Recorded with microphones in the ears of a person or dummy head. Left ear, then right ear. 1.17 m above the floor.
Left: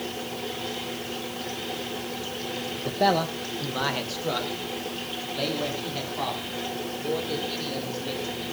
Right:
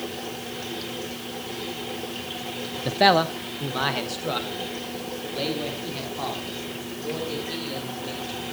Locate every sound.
2.9 s a man speaking: 55° right (ahead or behind), 0.5 m; by 8.4 s 5° left (ahead or behind), 5 m